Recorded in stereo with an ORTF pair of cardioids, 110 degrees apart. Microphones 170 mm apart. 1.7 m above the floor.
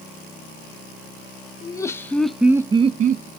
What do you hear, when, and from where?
1.6 s laughter: 20° left, 0.9 m; by 3.3 s 70° right, 0.6 m